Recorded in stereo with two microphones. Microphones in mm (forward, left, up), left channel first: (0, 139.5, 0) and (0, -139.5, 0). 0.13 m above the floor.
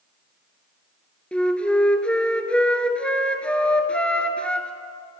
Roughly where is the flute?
Centre.